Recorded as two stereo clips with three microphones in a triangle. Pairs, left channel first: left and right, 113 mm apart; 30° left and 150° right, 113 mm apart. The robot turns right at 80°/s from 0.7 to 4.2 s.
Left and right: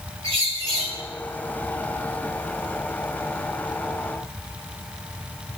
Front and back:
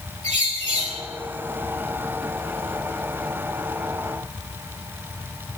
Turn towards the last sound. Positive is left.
turn(degrees=155)